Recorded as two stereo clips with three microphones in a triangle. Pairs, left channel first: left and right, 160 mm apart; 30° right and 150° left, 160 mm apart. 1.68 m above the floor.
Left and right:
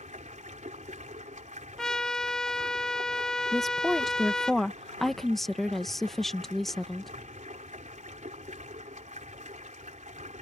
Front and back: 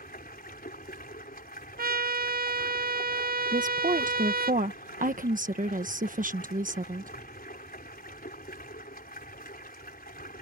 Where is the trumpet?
175° left.